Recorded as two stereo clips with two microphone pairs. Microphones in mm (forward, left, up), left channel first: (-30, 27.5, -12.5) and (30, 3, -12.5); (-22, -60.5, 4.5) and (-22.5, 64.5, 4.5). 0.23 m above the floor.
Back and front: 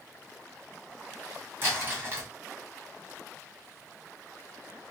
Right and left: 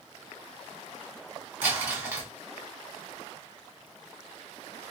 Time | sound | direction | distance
1.6 | crumpling | 20° left | 1.7 m